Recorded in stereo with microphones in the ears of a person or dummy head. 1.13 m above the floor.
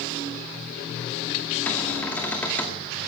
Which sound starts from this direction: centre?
A cupboard door, at 1.7 s.